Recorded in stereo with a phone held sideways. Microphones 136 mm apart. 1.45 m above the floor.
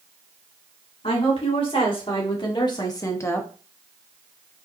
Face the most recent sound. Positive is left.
turn(degrees=10)  # may be behind; listen again after turning